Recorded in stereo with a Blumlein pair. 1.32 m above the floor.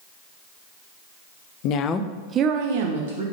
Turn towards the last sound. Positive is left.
turn(degrees=-65)